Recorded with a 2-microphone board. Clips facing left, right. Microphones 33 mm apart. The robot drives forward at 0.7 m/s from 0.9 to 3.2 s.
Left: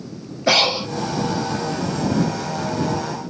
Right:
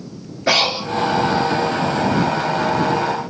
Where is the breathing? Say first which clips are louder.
Even; 15° right (ahead or behind), 2.5 m.